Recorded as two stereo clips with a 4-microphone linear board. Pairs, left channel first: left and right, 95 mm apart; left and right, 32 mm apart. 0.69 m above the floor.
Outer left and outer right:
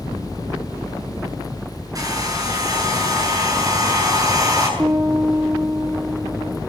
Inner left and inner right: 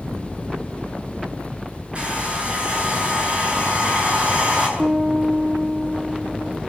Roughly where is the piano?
Right.